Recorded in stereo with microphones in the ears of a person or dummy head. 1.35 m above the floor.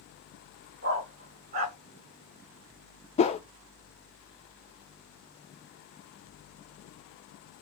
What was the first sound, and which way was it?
A dog barking, 45° right (ahead or behind).